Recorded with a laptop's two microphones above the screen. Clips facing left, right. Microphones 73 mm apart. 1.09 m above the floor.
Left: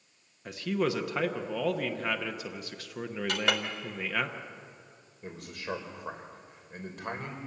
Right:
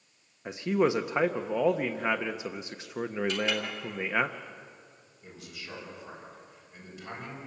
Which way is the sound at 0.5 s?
20° right (ahead or behind).